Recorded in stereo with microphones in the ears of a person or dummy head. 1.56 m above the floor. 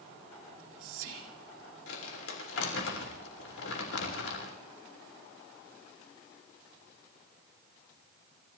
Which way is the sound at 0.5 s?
85° right.